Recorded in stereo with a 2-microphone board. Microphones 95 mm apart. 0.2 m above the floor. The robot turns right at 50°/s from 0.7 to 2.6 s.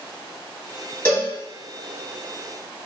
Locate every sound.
1.1 s a cowbell: 25° left (ahead or behind), 1.1 m